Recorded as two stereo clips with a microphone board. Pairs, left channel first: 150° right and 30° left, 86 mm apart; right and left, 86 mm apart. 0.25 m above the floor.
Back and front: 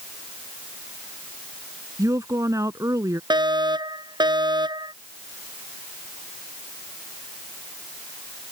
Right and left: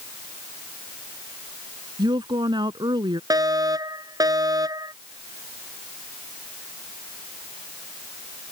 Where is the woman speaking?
75° left.